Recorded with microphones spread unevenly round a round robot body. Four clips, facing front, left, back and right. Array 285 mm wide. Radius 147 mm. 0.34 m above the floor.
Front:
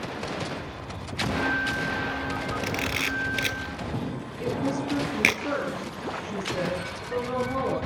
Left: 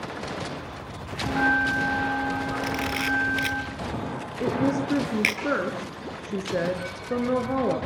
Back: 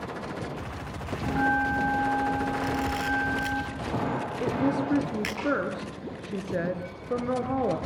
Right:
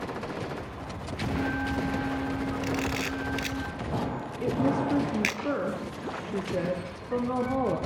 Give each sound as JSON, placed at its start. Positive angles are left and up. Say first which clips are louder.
{"t": 1.3, "sound": "a bell", "louder": "left 7 dB, back 2 dB", "azimuth_deg": 115, "distance_m": 8.0}
{"t": 2.6, "sound": "a camera shutter", "louder": "left 2 dB, back 2 dB", "azimuth_deg": 10, "distance_m": 5.5}
{"t": 4.4, "sound": "a woman speaking", "louder": "left 2 dB, back 1 dB", "azimuth_deg": 120, "distance_m": 5.5}